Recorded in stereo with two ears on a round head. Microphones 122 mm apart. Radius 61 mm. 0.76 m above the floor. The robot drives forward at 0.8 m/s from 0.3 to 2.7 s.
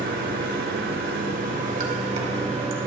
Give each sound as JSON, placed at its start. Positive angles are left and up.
{"t": 0.0, "sound": "running water", "side_deg": -75, "distance_m": 1.6}